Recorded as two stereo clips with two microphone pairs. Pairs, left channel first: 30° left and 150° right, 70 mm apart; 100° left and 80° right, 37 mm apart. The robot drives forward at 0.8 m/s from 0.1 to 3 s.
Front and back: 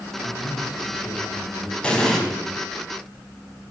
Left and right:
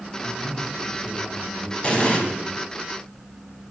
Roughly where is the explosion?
Left.